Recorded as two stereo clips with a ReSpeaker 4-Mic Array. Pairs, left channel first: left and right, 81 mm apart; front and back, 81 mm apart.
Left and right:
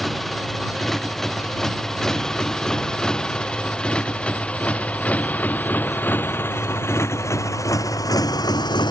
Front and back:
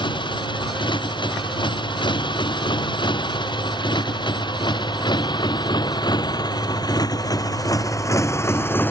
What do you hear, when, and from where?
0.0 s a motorcycle: 5° left; by 8.9 s 65° left